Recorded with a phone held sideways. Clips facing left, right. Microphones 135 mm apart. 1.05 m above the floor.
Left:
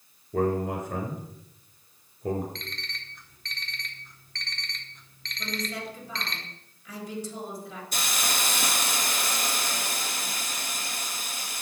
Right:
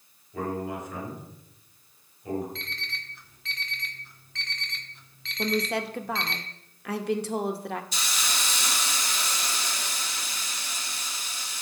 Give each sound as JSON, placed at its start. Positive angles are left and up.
{"t": 0.3, "sound": "a man speaking", "side_deg": 60, "distance_m": 4.0}
{"t": 2.5, "sound": "an alarm clock", "side_deg": -5, "distance_m": 1.7}
{"t": 5.4, "sound": "a woman speaking", "side_deg": -70, "distance_m": 1.3}
{"t": 7.9, "sound": "a hiss", "side_deg": 55, "distance_m": 1.3}